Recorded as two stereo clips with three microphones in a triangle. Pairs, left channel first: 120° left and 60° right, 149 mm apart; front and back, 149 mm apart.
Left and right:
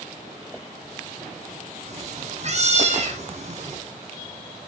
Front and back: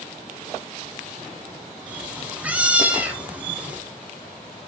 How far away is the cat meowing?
About 1.8 m.